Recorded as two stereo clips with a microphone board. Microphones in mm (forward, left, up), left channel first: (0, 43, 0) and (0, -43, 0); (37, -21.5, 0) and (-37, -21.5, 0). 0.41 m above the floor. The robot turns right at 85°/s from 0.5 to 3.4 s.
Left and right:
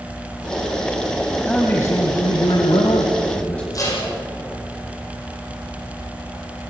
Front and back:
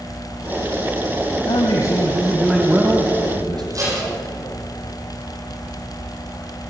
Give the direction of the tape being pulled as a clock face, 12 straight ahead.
7 o'clock.